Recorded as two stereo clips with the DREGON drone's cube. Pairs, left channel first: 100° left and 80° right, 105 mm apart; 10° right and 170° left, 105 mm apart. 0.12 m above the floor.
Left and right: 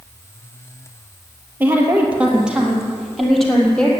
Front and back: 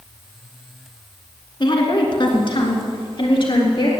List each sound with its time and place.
1.6 s a woman speaking: 15° right, 2 m; by 3.9 s 20° left, 2.5 m